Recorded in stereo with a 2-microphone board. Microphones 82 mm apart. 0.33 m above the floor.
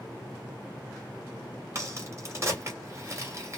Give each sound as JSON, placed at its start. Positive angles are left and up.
{"t": 1.8, "sound": "a crack", "side_deg": -35, "distance_m": 1.7}